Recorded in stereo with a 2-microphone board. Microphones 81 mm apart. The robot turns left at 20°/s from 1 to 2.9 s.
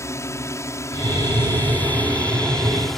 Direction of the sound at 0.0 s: 35° left (ahead or behind).